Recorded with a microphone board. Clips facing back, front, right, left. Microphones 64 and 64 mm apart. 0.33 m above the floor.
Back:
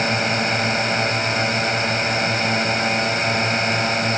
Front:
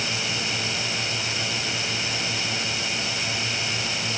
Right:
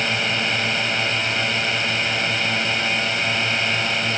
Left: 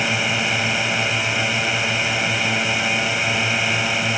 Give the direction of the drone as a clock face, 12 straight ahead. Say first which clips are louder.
Back 9 dB, left 1 dB; 6 o'clock.